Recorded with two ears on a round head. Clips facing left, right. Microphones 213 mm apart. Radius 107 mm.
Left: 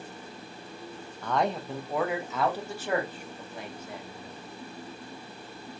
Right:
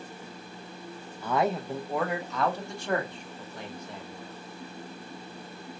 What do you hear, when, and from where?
1.2 s a man speaking: 5° right (ahead or behind), 0.5 m; by 4.3 s 5° left (ahead or behind), 1.9 m